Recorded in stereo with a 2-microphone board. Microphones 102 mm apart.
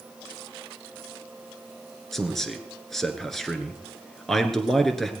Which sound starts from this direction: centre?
A man speaking, at 2.1 s.